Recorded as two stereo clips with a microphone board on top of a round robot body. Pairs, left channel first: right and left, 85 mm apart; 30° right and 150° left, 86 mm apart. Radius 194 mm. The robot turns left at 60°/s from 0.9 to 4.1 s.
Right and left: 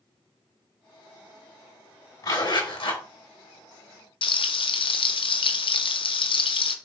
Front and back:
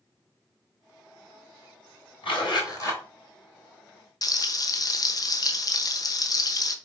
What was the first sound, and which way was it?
A zipper, 45° right.